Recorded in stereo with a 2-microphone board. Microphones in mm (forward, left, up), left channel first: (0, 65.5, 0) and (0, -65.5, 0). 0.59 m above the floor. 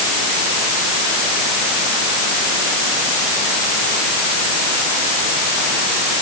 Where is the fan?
I don't hear a fan.